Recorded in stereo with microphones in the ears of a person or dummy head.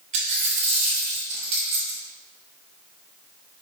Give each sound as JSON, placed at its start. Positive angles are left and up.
{"t": 0.1, "sound": "a dropped coin", "side_deg": -35, "distance_m": 1.8}